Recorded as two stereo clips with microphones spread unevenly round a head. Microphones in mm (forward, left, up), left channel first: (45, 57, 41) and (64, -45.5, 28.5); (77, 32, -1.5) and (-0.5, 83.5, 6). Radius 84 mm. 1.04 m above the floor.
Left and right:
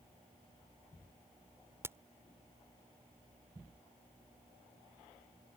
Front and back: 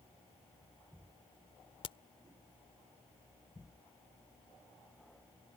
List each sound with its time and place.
1.8 s a crack: 10° right